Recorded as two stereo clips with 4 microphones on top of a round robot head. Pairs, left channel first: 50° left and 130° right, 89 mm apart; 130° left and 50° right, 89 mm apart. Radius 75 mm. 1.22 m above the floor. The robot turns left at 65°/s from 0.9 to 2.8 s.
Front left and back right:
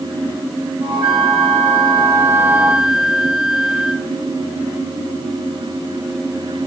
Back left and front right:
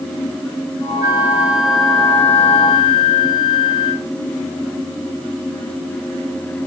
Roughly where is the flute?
Right.